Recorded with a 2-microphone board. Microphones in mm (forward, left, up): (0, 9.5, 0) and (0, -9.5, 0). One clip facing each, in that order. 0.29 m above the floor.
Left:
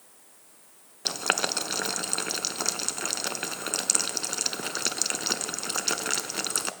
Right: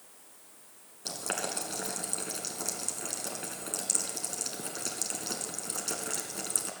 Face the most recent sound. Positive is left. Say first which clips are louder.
# left 8 dB
turn(degrees=60)  # may be behind; listen again after turning